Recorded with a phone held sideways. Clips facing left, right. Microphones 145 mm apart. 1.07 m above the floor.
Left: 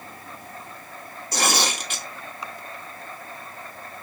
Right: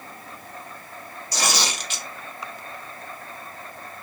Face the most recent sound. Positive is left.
turn(degrees=55)  # may be behind; listen again after turning